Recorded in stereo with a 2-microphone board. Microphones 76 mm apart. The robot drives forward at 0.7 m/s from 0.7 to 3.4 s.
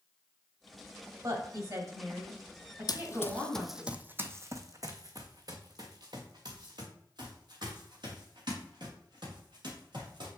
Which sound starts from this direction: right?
A woman speaking, at 1.2 s.